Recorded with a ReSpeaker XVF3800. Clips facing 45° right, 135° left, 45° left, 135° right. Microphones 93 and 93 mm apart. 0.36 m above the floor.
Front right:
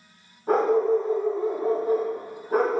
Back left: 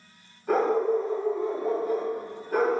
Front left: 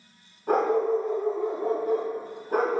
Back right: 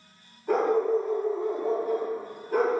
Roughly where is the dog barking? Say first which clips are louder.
Front right 3 dB, even; ahead.